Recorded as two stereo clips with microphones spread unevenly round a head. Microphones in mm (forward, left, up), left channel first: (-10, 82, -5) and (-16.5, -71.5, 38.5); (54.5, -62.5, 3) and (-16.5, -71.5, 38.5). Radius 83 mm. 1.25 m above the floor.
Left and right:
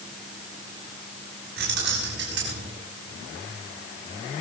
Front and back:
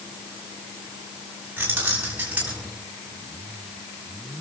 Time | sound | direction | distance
1.6 | keys jangling | 110° right | 7 m